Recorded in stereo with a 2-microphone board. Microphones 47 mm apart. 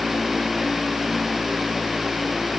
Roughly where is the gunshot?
I don't hear a gunshot.